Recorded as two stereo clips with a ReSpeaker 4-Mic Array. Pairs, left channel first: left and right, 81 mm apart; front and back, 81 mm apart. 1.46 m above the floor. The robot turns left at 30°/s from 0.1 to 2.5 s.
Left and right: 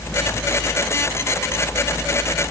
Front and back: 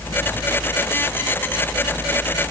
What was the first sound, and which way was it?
Only background noise.